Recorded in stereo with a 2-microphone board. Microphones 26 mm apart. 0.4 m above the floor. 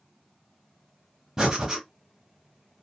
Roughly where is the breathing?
Right.